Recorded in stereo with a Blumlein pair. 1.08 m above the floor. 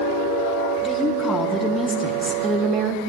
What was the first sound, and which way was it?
A woman speaking, 15° left.